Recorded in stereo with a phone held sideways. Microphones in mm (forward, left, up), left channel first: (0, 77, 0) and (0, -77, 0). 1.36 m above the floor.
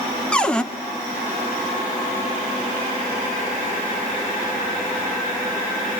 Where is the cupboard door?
5° left (ahead or behind), 1.2 m.